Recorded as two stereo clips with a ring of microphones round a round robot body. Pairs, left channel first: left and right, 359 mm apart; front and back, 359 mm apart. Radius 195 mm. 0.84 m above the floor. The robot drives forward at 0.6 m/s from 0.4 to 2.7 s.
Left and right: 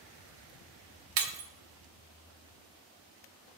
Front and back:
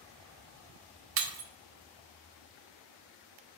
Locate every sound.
1.2 s breaking glass: 125° right, 1.0 m; by 1.5 s 135° right, 1.1 m